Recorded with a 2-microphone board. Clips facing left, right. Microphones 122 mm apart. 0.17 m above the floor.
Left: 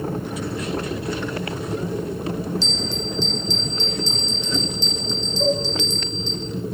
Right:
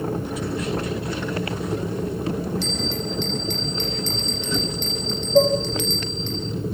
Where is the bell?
55° right (ahead or behind), 9.5 m.